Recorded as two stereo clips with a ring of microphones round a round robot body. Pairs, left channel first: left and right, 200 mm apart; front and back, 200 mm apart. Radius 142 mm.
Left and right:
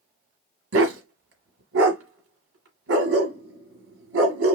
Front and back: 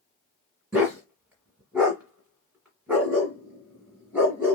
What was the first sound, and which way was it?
A dog barking, 95° right.